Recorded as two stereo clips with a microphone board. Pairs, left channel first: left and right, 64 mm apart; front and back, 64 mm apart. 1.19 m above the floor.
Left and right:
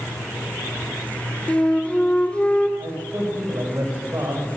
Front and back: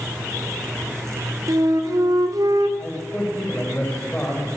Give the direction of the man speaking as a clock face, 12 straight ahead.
2 o'clock.